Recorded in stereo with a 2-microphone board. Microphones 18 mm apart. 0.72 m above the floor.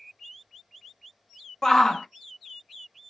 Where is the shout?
30° left (ahead or behind), 0.5 m.